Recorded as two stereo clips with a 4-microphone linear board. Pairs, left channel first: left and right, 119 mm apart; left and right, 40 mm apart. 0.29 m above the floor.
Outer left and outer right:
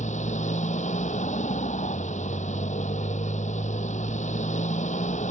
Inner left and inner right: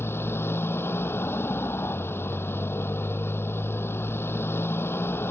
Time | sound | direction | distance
0.0 | a motorcycle | 85° left | ?